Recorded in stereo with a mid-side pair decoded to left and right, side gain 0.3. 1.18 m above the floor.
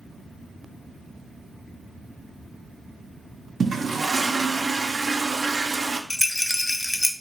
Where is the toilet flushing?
55° right, 0.5 m.